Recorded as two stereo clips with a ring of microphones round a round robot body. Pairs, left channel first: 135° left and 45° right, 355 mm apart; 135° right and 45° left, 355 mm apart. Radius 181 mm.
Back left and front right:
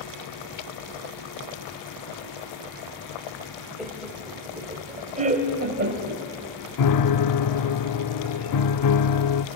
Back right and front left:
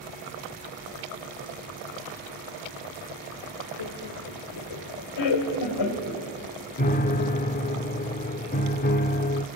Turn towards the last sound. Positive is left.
turn(degrees=160)